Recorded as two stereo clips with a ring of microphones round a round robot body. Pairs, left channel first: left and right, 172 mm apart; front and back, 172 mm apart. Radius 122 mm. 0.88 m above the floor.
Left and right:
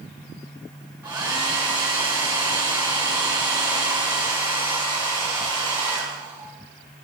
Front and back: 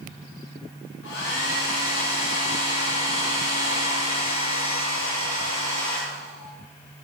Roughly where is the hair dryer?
Ahead right.